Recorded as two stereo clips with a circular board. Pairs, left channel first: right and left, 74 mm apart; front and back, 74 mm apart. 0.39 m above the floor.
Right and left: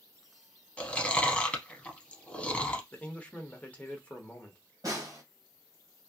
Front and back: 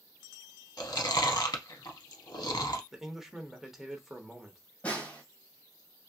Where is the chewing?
20° right, 0.6 m.